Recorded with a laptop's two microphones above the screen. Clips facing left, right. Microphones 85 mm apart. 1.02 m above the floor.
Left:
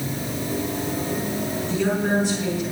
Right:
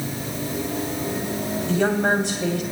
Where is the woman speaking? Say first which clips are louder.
Right 2 dB; 70° right (ahead or behind), 3 m.